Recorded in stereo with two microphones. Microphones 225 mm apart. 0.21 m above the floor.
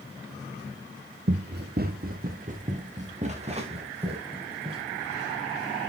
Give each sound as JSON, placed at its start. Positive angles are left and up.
{"t": 1.3, "sound": "running footsteps", "side_deg": -50, "distance_m": 1.4}